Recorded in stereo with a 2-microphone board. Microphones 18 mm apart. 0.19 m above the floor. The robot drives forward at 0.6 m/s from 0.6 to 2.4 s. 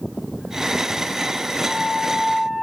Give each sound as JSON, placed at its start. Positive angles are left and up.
{"t": 1.6, "sound": "a flute", "side_deg": 55, "distance_m": 2.0}